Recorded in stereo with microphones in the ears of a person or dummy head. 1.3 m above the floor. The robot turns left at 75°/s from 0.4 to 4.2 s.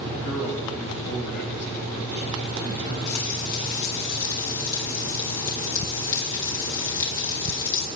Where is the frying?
110° left, 1.9 m; by 7.9 s 25° left, 1.9 m.